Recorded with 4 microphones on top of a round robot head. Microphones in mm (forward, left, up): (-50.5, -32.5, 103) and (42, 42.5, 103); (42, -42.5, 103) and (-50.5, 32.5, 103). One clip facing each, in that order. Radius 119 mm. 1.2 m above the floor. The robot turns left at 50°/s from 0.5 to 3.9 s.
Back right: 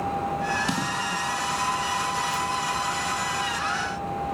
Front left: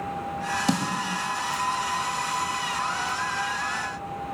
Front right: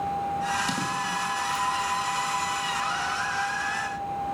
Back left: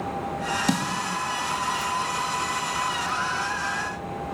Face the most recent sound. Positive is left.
turn(degrees=-70)